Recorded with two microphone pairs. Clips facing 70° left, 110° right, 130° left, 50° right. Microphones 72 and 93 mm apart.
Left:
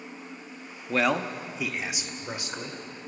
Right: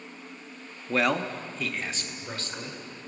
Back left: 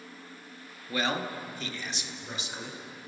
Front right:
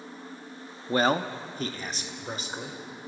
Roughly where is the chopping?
I don't hear chopping.